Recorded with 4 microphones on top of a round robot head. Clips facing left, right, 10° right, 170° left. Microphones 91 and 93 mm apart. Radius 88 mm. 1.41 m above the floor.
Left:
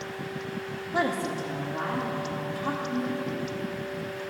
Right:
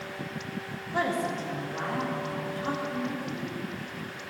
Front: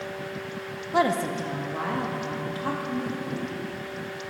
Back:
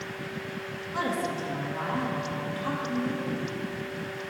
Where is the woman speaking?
15° left, 0.9 m; by 3.5 s straight ahead, 3.5 m.